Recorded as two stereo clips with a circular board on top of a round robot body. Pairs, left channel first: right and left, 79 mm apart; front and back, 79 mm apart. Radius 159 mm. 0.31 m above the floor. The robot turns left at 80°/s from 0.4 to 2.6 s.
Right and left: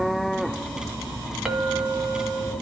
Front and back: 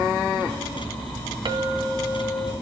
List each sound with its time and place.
1.4 s a clink: 170° left, 2 m; by 2.5 s 85° left, 2 m